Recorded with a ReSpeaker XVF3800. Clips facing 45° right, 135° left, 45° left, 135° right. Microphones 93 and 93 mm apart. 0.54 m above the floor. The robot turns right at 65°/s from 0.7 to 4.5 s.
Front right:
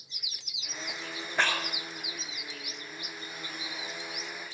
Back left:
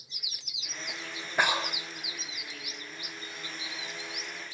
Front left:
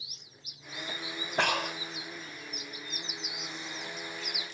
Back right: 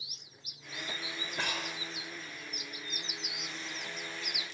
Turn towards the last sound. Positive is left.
turn(degrees=-100)